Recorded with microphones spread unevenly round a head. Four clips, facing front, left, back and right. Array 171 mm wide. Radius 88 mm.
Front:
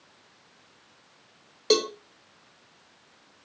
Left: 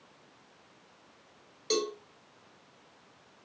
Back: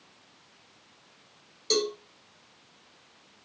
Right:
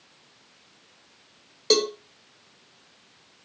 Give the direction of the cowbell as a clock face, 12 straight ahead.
1 o'clock.